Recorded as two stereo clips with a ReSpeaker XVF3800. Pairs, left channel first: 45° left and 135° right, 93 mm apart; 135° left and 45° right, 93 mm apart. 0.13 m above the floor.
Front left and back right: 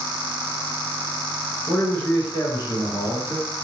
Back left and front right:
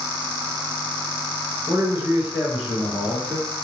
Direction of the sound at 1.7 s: 20° right.